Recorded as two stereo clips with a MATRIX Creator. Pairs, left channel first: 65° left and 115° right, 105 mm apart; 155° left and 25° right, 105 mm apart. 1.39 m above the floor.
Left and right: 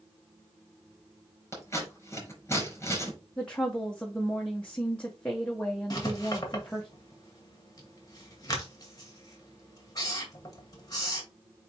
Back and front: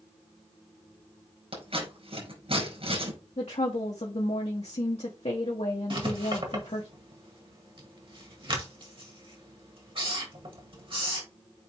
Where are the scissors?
Straight ahead, 5 m.